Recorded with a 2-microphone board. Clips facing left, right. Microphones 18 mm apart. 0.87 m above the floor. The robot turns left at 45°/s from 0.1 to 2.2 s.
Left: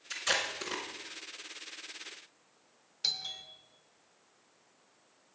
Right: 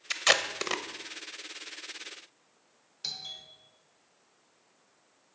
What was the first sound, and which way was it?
Tape being pulled, 50° right (ahead or behind).